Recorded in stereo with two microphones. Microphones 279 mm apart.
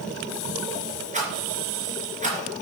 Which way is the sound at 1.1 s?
25° right (ahead or behind).